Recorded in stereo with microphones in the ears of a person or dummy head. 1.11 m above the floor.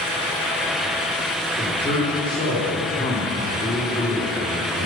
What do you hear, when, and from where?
1.6 s a man speaking: 25° left (ahead or behind), 3 m